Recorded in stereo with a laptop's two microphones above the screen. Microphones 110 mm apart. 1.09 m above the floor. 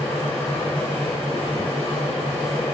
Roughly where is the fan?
Left.